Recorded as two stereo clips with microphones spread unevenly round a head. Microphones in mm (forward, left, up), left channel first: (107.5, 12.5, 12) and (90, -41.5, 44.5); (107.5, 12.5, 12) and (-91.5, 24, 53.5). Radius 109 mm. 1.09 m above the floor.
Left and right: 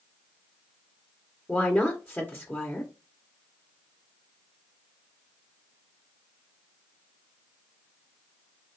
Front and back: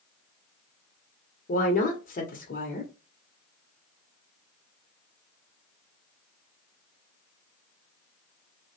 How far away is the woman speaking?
About 0.9 m.